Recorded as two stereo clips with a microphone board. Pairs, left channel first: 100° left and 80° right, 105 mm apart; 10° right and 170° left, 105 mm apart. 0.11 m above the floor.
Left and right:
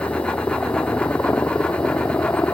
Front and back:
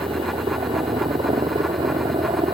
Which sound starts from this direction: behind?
A helicopter, at 0.0 s.